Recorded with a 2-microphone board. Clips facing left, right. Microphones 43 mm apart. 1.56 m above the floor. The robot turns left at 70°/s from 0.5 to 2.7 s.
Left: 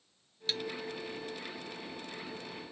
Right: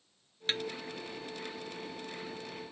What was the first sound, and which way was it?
A snare drum, 40° right (ahead or behind).